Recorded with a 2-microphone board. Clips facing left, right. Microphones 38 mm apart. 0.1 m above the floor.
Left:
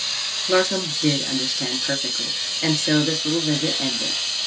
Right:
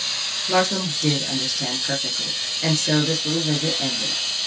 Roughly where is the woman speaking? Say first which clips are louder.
Left 1 dB; centre.